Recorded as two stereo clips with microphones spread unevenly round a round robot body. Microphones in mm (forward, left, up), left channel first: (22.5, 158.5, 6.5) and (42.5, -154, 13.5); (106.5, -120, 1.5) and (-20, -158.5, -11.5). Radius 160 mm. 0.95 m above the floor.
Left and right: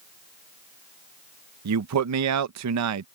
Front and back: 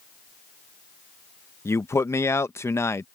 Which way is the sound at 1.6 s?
55° right.